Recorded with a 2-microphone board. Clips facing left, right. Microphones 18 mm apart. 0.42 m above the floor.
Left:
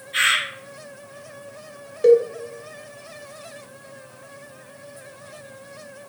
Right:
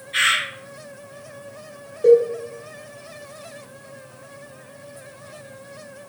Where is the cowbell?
50° left (ahead or behind), 0.6 m.